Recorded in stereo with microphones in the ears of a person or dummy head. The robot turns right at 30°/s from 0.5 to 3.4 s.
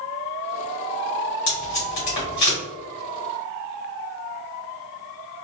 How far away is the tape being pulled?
About 1.7 m.